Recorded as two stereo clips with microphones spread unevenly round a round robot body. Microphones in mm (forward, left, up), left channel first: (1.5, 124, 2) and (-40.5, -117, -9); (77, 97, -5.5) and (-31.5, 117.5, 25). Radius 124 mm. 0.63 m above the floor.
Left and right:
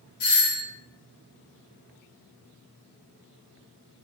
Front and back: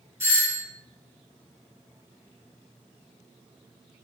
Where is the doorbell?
90° left, 1.2 m.